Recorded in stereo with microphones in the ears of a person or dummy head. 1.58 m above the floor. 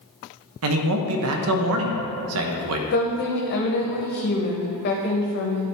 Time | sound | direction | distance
0.6 | a man speaking | 80° right | 0.9 m
2.9 | a woman speaking | 45° left (ahead or behind) | 0.9 m